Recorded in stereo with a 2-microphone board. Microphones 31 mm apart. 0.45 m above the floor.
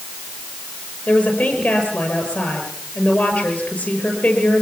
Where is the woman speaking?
80° left, 8 m.